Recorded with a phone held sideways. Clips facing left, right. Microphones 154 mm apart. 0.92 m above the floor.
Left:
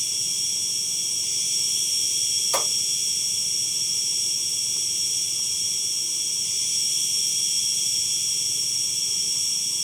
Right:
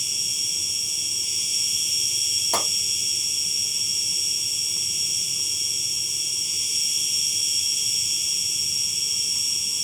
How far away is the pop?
About 2.5 m.